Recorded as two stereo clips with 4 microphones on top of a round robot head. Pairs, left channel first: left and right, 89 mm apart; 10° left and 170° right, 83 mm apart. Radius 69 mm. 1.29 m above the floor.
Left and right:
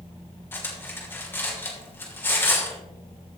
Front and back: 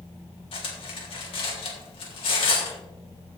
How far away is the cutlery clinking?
About 2.5 m.